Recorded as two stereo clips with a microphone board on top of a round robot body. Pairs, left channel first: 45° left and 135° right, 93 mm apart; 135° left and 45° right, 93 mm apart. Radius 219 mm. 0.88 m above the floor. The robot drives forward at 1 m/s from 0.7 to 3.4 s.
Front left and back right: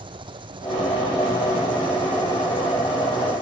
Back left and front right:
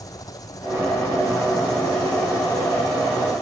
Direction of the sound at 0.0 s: 170° right.